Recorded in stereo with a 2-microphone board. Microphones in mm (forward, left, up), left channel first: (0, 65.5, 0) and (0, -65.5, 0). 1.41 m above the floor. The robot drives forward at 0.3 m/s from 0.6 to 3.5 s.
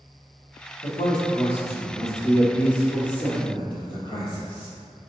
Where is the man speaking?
60° left (ahead or behind), 1.3 m; by 4.7 s 40° left (ahead or behind), 1.8 m.